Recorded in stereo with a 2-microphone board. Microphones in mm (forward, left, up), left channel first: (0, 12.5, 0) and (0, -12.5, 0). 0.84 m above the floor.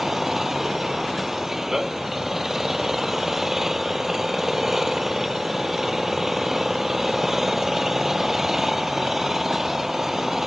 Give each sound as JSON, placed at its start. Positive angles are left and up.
{"t": 0.0, "sound": "an engine running", "side_deg": -15}